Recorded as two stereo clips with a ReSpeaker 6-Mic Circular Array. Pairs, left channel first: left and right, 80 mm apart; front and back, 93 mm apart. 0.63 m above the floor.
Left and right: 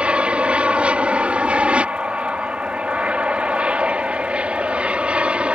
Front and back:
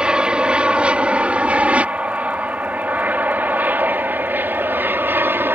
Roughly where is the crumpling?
No crumpling in this recording.